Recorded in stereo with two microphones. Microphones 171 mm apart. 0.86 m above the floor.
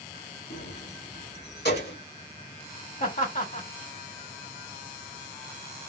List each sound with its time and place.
0.5 s keys jangling: 80° left, 0.9 m; by 2.0 s 65° left (ahead or behind), 1.7 m
3.0 s laughter: 50° left (ahead or behind), 2 m